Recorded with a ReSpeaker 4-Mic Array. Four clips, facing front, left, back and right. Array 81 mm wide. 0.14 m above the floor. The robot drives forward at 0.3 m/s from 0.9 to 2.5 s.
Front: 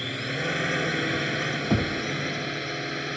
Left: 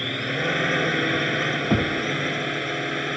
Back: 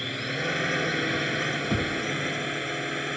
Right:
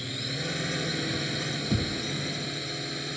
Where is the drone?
90° left; by 3.2 s 95° left.